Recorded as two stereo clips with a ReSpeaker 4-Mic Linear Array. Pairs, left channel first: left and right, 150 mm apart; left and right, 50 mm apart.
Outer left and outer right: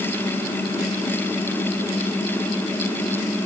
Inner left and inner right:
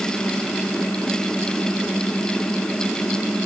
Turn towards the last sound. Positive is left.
No sound to turn to.